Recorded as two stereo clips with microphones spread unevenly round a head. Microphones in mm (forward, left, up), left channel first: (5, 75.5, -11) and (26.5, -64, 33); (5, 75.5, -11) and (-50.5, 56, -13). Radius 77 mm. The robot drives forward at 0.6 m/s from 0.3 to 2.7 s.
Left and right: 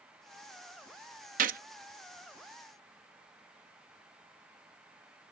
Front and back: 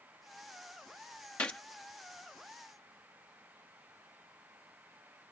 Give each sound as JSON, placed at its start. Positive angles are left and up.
{"t": 1.4, "sound": "a gunshot", "azimuth_deg": -55}